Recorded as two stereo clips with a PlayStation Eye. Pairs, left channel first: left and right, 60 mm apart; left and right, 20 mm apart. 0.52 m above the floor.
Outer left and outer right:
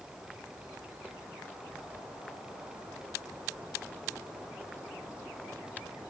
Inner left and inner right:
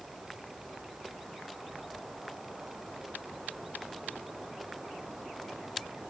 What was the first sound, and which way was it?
Only background noise.